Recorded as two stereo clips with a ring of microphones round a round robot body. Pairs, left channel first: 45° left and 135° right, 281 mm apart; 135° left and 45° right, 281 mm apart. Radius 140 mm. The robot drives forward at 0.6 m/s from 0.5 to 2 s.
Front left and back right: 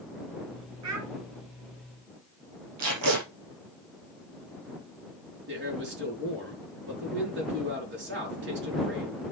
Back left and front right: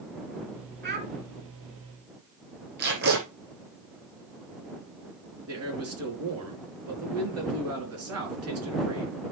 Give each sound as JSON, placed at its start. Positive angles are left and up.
{"t": 0.8, "sound": "a child speaking", "azimuth_deg": -100, "distance_m": 3.0}
{"t": 2.8, "sound": "tape being pulled", "azimuth_deg": -100, "distance_m": 6.0}
{"t": 5.5, "sound": "a man speaking", "azimuth_deg": -85, "distance_m": 5.0}